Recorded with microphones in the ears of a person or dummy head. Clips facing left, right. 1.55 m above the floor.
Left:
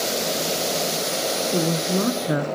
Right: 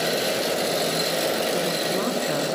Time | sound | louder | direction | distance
1.5 | a woman speaking | left 2 dB | 35° left (ahead or behind) | 0.6 m